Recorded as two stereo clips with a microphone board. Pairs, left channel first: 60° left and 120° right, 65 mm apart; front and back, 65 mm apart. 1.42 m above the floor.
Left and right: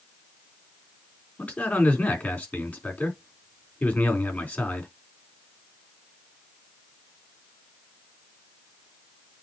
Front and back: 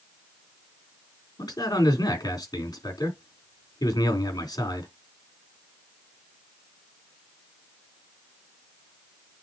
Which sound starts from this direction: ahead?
A man speaking, at 1.4 s.